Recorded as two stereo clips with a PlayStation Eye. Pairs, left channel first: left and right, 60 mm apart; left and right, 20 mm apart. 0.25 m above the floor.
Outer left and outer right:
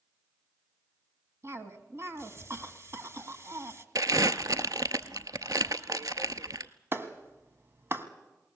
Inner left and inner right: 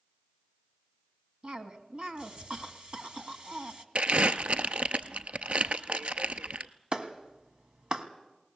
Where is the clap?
45° right (ahead or behind), 1.5 m.